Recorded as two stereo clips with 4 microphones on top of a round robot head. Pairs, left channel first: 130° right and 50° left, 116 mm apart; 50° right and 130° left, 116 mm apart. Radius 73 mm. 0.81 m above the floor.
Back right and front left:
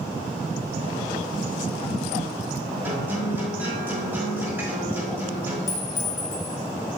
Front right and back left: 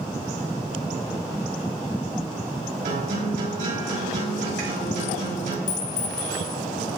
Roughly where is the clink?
Ahead right.